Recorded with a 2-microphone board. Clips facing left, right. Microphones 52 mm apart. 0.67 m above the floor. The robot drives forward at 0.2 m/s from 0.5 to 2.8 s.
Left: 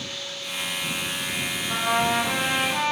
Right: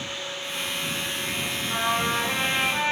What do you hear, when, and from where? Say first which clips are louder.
1.7 s a trumpet: left 2 dB; 35° left (ahead or behind), 0.9 m; by 2.9 s 30° left (ahead or behind), 1.1 m